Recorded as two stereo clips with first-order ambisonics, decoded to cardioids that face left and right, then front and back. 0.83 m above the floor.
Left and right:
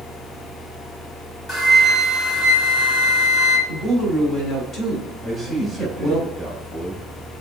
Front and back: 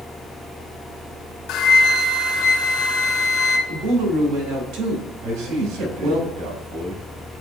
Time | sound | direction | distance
1.5 | a flute | 30° left | 1.6 m
3.7 | a woman speaking | 160° left | 3.5 m
5.2 | a man speaking | 175° left | 3 m